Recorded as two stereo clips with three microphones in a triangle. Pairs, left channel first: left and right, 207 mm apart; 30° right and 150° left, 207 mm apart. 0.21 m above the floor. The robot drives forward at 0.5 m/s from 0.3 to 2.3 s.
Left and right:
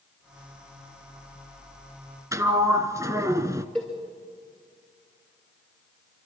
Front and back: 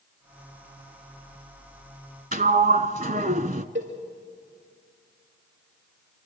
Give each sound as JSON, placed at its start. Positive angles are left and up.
{"t": 2.3, "sound": "a sliding door", "azimuth_deg": -165, "distance_m": 0.8}
{"t": 3.8, "sound": "a cowbell", "azimuth_deg": 180, "distance_m": 6.0}